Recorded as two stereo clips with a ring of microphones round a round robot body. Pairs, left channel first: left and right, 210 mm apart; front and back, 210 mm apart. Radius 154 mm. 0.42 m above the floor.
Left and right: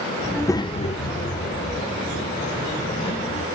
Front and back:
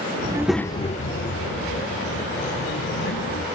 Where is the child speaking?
Straight behind, 0.5 m; by 3.4 s 35° left, 3 m.